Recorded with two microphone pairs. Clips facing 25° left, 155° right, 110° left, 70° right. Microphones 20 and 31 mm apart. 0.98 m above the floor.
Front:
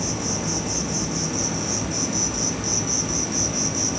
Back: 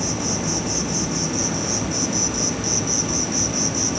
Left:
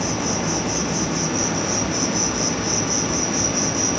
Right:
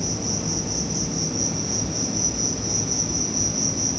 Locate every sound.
0.0 s an insect: 125° left, 1.4 m